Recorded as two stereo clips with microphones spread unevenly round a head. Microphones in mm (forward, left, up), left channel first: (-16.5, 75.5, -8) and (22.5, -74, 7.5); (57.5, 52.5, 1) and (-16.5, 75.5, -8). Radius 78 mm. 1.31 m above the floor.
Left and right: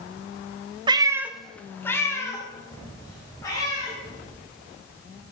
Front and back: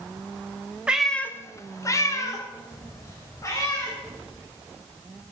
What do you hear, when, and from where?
0.9 s a cat meowing: 115° right, 0.8 m; by 3.9 s 35° left, 4.5 m